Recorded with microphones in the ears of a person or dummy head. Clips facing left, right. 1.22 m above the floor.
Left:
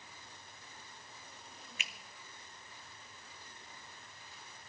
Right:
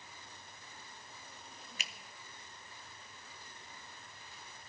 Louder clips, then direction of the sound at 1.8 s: Even; 30° right (ahead or behind).